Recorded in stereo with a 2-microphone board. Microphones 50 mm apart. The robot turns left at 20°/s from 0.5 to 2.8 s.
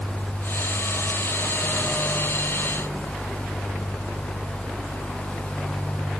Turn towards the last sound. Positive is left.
No sound to turn to.